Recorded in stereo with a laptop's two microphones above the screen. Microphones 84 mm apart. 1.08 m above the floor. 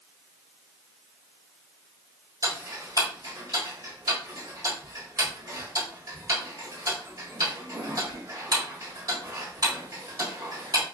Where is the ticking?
50° right (ahead or behind), 1.4 m.